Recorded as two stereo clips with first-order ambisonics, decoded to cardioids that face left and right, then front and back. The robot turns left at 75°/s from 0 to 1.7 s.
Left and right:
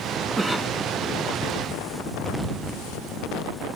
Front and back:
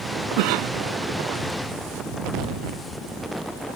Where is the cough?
170° right; by 0.8 s 155° left.